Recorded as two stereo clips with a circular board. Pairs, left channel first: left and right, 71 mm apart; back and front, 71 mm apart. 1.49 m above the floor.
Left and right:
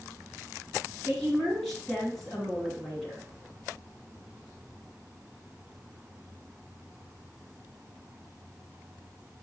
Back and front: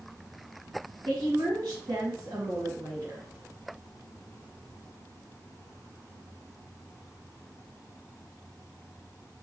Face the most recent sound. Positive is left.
turn(degrees=15)